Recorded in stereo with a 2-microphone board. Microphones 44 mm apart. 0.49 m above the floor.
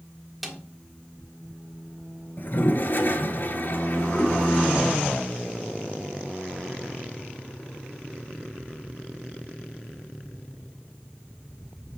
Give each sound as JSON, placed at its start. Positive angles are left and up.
{"t": 0.4, "sound": "a snare drum", "side_deg": -5, "distance_m": 1.5}
{"t": 2.4, "sound": "a toilet flushing", "side_deg": 50, "distance_m": 1.1}